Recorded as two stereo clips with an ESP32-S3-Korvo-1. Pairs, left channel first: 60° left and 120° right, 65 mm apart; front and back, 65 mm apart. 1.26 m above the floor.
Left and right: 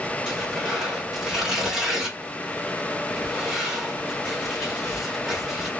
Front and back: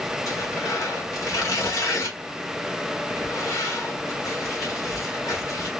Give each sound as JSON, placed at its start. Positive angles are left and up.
{"t": 0.3, "sound": "tearing paper", "azimuth_deg": -40, "distance_m": 1.3}